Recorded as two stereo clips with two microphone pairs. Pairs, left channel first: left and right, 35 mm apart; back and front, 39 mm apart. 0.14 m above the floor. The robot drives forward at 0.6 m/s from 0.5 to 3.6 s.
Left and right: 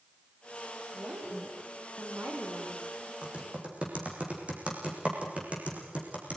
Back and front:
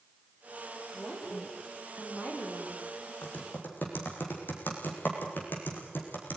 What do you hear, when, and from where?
0.9 s a woman speaking: 110° right, 6 m; by 3.1 s 125° right, 6.5 m
3.2 s typing on a keyboard: 145° right, 5.5 m